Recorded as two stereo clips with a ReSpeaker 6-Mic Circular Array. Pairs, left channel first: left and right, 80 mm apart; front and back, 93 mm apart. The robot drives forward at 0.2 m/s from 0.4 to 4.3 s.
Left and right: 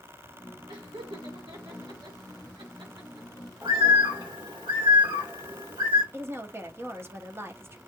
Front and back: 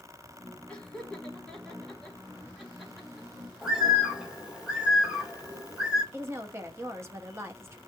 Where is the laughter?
75° right, 1.9 m; by 3.5 s 95° right, 1.8 m.